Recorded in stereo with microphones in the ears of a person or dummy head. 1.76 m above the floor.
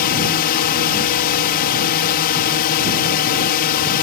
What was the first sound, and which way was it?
A drone, 45° left (ahead or behind).